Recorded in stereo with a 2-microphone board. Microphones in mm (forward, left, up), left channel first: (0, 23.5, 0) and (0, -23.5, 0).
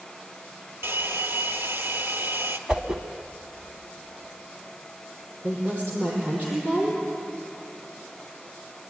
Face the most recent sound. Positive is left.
turn(degrees=-30)  # may be behind; listen again after turning